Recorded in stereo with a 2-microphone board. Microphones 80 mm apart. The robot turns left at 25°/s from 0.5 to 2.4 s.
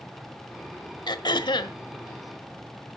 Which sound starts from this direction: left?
Throat clearing, at 1.1 s.